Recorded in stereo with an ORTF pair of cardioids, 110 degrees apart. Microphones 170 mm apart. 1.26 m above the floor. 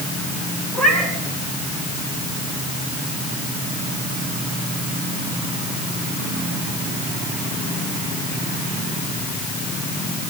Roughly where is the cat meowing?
Ahead.